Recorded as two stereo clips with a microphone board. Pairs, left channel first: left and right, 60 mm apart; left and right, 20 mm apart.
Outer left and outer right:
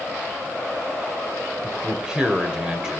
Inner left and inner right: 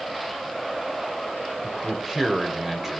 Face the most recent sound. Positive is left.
turn(degrees=-15)  # may be behind; listen again after turning